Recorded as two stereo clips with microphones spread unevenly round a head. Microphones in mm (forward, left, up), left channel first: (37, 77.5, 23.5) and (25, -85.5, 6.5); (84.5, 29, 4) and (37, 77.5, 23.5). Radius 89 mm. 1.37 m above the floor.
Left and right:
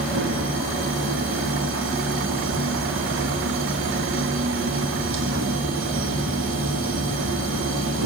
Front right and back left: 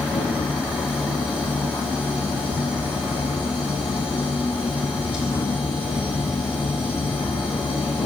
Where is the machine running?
100° right, 1.4 m.